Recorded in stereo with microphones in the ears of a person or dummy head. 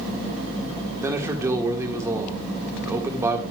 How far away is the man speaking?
About 1.7 m.